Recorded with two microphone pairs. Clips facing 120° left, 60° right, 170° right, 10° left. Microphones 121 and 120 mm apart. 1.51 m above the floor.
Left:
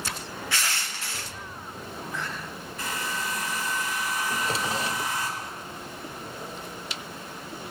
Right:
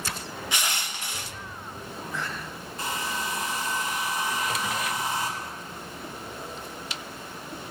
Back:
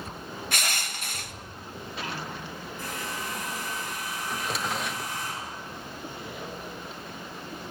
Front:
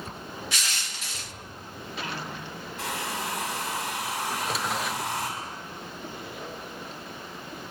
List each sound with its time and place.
0.5 s crushing: 130° right, 1.1 m
2.8 s a hair dryer: 15° left, 6.5 m
4.3 s a drawer: 100° left, 1.0 m